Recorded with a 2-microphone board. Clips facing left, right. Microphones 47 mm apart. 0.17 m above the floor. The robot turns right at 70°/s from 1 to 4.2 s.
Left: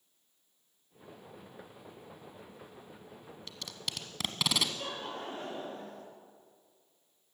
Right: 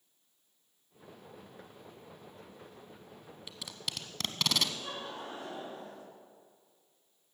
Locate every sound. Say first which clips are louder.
3.5 s tape being pulled: even; 10° right (ahead or behind), 1.2 m; by 4.7 s 10° left (ahead or behind), 1.2 m
4.8 s laughter: left 2 dB; 50° left (ahead or behind), 4.5 m